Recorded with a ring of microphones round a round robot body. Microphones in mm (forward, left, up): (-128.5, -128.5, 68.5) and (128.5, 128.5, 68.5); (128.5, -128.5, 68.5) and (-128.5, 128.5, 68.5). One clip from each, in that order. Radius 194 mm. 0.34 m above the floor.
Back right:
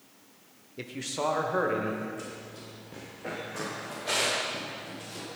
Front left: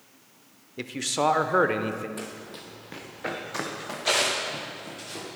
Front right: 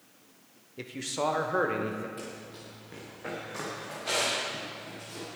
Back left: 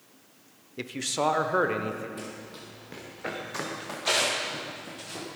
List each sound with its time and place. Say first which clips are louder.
0.8 s a man speaking: front left 6 dB, back left 4 dB; 95° left, 0.9 m; by 2.1 s 55° left, 1.3 m
2.2 s running footsteps: front left 3 dB, back left 2 dB; 50° left, 2 m; by 5.3 s 85° left, 5.5 m